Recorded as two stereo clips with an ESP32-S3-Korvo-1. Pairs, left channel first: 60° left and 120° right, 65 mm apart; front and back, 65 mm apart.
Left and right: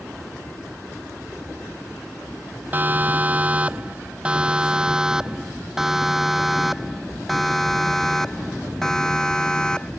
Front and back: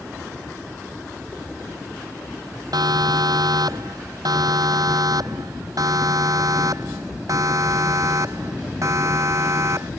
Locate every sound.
2.7 s a siren: straight behind; by 9.9 s 135° left